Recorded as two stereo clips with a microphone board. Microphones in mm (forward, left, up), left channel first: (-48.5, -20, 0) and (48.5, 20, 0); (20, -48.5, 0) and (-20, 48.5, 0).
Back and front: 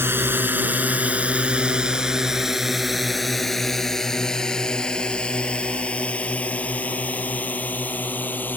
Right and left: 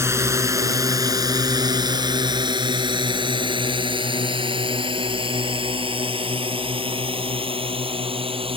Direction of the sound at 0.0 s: 70° left.